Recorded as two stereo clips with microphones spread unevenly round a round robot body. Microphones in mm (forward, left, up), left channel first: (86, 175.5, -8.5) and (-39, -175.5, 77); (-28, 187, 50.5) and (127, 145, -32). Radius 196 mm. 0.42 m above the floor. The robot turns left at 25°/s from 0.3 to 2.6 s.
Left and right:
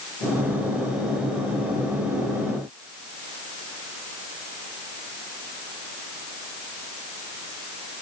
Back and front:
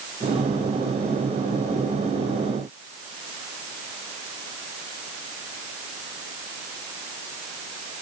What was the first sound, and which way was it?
Only background noise.